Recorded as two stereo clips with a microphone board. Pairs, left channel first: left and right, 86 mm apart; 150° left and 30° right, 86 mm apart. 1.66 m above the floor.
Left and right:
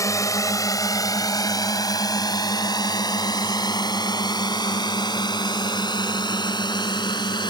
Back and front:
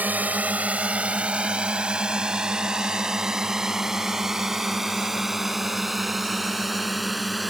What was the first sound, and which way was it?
A drone, 40° left.